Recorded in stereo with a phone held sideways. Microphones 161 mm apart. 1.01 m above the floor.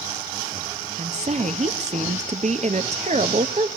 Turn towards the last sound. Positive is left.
turn(degrees=-45)  # may be behind; listen again after turning